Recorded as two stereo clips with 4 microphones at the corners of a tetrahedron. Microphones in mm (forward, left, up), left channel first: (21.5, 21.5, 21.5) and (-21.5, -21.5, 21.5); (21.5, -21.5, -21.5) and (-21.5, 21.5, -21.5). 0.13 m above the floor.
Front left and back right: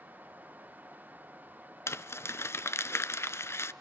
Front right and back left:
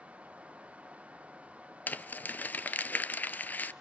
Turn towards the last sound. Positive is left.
turn(degrees=10)